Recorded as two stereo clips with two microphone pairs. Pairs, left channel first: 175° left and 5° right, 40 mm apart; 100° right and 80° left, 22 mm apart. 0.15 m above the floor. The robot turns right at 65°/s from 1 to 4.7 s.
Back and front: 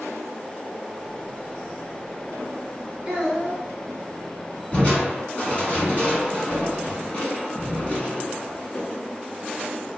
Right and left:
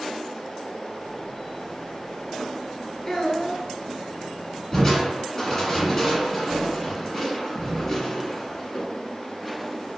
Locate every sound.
3.0 s a child speaking: 55° right, 1.3 m; by 3.6 s 15° right, 1.3 m
4.7 s crushing: 160° right, 1.4 m